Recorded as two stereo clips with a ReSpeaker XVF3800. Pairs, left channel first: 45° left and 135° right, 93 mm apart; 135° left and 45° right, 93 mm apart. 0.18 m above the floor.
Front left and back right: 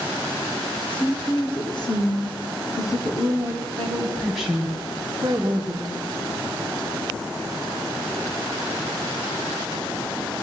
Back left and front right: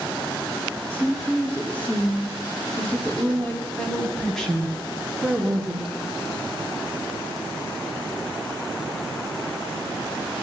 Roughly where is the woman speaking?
Ahead left.